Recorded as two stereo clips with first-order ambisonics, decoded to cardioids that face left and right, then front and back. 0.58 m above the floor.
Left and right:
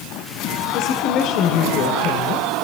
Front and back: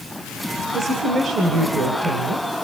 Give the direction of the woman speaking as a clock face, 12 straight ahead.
8 o'clock.